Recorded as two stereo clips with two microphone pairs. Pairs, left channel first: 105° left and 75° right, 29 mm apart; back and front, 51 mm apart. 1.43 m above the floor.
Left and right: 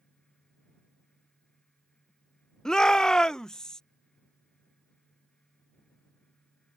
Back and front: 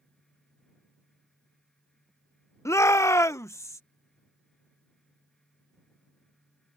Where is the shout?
175° left.